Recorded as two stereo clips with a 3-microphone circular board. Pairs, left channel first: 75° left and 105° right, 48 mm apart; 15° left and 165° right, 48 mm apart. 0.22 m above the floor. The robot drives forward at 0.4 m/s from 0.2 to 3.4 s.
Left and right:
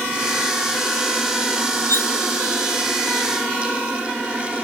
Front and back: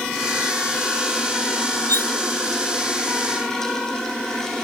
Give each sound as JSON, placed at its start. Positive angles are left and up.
{"t": 1.9, "sound": "cutlery clinking", "azimuth_deg": 45}